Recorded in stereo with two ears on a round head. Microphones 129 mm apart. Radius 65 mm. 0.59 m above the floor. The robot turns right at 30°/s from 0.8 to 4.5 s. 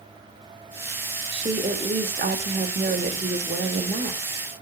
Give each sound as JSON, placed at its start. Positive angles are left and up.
{"t": 1.3, "sound": "a woman speaking", "azimuth_deg": -130, "distance_m": 1.3}